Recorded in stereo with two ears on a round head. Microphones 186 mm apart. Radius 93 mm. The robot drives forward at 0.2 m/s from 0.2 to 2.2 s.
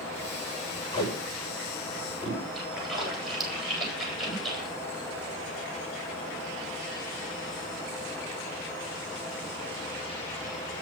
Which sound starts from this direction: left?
Tape being pulled, at 0.9 s.